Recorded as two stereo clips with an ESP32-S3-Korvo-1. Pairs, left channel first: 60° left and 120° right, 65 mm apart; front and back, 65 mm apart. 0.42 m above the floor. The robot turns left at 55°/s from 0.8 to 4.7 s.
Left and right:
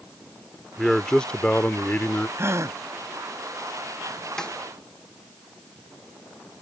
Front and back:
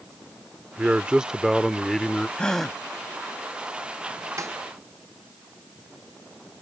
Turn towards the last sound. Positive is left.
turn(degrees=125)